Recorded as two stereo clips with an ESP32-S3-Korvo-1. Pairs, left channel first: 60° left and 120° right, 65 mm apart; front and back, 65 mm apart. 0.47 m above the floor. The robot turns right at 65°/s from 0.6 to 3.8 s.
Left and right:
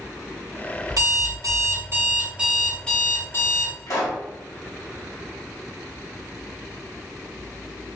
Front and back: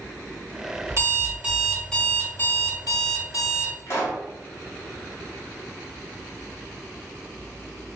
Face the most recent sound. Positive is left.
turn(degrees=35)